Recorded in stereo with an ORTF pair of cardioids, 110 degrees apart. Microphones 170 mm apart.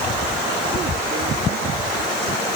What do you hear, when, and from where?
Only background noise.